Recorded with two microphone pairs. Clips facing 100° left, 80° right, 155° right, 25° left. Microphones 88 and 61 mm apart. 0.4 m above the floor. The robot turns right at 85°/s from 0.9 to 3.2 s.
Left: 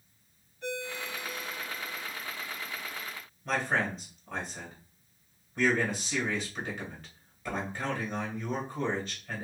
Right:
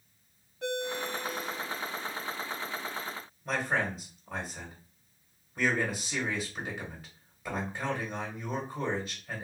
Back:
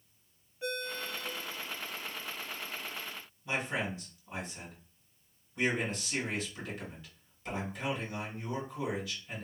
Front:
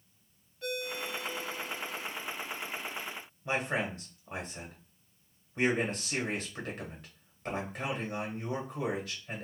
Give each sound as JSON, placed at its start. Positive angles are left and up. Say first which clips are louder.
{"t": 0.6, "sound": "a ringtone", "louder": "right 4 dB, front 1 dB", "azimuth_deg": -85, "distance_m": 0.8}
{"t": 3.5, "sound": "a man speaking", "louder": "left 1 dB, front 2 dB", "azimuth_deg": 0, "distance_m": 1.4}